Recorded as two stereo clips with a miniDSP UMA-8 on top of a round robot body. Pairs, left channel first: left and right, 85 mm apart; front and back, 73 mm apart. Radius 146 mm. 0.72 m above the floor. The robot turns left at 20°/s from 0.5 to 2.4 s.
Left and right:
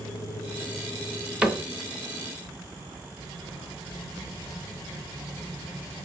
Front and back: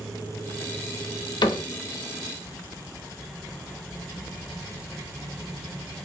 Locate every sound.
1.4 s a cupboard door: 10° right, 0.6 m; by 1.6 s 15° right, 0.6 m